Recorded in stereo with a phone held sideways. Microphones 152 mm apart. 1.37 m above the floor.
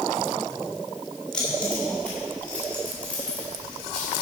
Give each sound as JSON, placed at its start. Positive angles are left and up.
{"t": 1.3, "sound": "keys jangling", "side_deg": 5, "distance_m": 3.0}